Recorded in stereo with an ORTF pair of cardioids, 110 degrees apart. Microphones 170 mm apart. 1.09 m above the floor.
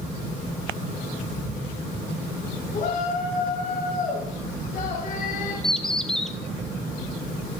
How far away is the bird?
About 1.1 m.